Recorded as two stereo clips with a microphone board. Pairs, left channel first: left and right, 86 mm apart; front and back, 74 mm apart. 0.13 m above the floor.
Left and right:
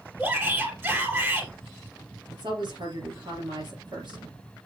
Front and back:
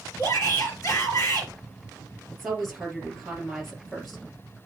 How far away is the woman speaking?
About 3.5 m.